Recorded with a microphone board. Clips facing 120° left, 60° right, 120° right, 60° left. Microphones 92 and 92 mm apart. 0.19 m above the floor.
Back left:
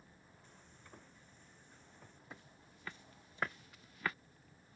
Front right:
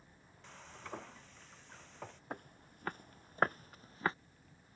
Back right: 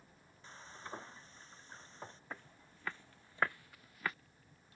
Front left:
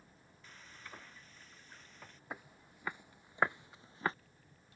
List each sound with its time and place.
0.4 s frying: 60° right
2.3 s footsteps: 20° right; by 4.2 s straight ahead